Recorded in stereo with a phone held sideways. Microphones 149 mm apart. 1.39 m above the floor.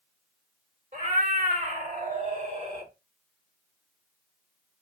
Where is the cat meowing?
55° right (ahead or behind), 1.8 m; by 2.9 s 50° right (ahead or behind), 1.2 m.